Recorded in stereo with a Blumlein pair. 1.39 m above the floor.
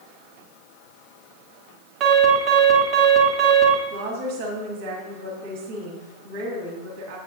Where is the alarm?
35° right, 3 m.